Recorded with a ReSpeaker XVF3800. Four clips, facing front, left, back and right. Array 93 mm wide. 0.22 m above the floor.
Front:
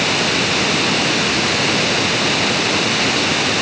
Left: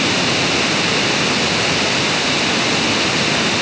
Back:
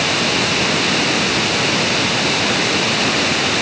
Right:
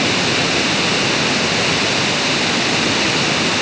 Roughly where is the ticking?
No ticking in this recording.